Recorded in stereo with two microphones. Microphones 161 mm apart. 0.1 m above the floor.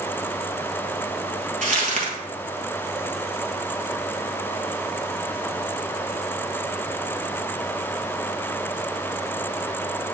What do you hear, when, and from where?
1.6 s crumpling: 50° right (ahead or behind), 1.4 m